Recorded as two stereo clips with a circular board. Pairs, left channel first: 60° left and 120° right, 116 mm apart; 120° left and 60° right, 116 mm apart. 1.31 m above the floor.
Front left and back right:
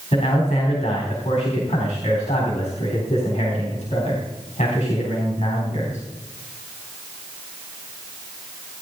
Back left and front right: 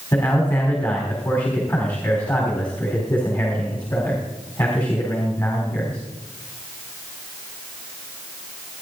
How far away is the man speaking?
About 3.5 m.